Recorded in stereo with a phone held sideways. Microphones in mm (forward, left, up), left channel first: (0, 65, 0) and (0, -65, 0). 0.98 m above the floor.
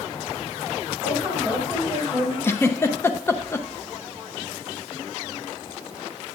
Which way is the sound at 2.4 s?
20° left (ahead or behind).